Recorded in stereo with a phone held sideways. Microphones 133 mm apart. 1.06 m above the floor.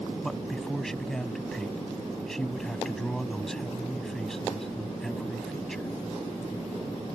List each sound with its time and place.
0.2 s a man speaking: 5° left (ahead or behind)